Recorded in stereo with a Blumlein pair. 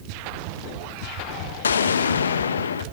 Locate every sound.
1.6 s an explosion: 70° left, 1.1 m